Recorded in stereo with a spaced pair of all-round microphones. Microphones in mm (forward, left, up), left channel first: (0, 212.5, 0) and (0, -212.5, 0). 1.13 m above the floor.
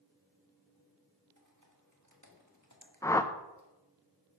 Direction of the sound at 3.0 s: 10° left (ahead or behind).